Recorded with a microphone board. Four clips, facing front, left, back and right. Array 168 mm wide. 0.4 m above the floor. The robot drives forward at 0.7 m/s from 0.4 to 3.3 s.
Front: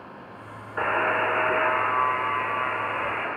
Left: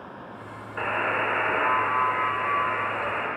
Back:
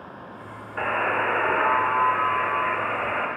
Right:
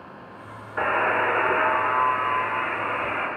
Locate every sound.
0.8 s a buzzer: 55° right, 0.9 m; by 3.3 s 165° right, 1.8 m